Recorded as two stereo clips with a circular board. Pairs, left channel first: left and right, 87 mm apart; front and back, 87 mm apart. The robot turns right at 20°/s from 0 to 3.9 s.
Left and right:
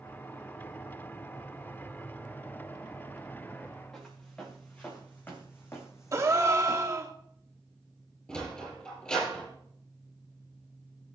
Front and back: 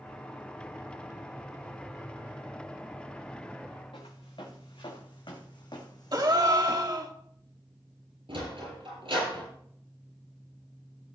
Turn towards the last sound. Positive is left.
turn(degrees=170)